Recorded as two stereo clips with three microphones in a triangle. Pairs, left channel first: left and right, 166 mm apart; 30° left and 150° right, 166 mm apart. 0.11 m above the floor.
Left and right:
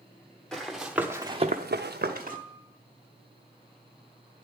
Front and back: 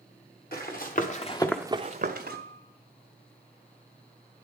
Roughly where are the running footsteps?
Ahead.